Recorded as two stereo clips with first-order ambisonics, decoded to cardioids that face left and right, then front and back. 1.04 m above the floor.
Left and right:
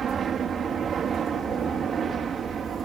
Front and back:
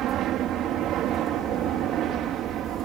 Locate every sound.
0.0 s an aircraft: 145° right; by 2.9 s 150° right